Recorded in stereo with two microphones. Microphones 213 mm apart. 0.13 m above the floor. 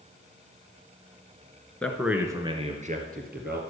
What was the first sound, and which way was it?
A man speaking, 5° left (ahead or behind).